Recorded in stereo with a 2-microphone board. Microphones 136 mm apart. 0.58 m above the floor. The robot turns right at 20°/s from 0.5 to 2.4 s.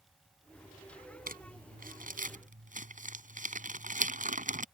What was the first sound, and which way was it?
Crumpling, 80° right.